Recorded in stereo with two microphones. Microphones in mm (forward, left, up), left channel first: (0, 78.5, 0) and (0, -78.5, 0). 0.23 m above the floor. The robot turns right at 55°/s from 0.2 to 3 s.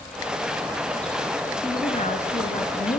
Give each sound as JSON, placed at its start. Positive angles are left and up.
{"t": 1.6, "sound": "a woman speaking", "azimuth_deg": 25, "distance_m": 2.5}